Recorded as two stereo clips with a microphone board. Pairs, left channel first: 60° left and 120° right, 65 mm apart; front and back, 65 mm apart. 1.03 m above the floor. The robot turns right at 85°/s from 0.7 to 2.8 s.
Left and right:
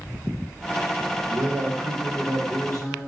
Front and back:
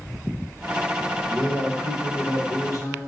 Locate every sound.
1.3 s a man speaking: 90° right, 1.0 m; by 3.0 s 35° left, 1.0 m